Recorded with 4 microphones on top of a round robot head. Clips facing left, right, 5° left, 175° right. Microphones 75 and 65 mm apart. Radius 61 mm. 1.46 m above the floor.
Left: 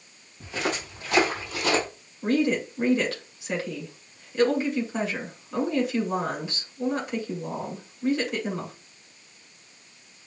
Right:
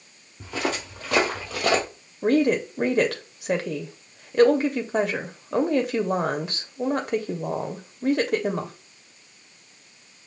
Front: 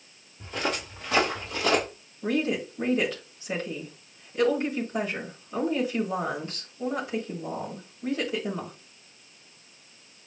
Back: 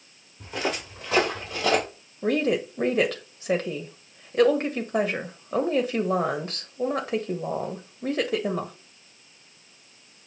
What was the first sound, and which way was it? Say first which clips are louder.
Footsteps: right 2 dB, back 1 dB; 100° right.